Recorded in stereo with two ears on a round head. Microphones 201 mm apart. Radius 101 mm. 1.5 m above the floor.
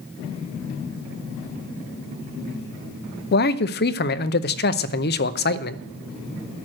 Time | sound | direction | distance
3.3 | a man speaking | 45° left (ahead or behind) | 0.6 m